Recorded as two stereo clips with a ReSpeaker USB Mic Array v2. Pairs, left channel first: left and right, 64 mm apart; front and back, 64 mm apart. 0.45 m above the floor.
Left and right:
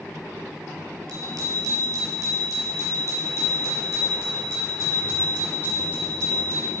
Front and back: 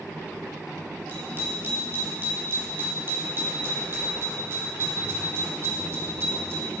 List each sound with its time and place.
1.1 s a bicycle bell: 120° right, 6.5 m; by 6.7 s 125° right, 12 m